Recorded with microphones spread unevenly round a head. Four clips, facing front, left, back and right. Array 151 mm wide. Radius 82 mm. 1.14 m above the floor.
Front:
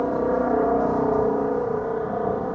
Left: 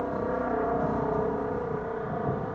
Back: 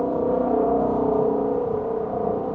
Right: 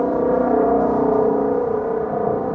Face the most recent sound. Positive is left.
turn(degrees=-95)